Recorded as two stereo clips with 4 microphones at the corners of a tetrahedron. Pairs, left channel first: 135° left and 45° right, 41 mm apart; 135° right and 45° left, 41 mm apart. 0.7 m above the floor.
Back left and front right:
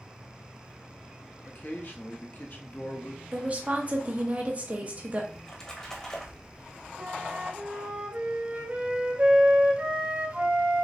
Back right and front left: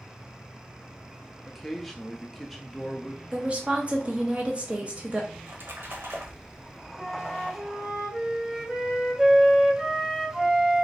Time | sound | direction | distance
1.5 | a man speaking | 135° left | 0.7 m
3.3 | a woman speaking | straight ahead | 0.8 m
5.3 | a splash | 60° left | 0.7 m
7.0 | a flute | 25° right | 0.6 m